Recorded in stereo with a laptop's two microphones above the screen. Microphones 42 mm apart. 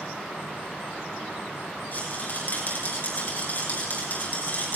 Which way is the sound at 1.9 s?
40° left (ahead or behind).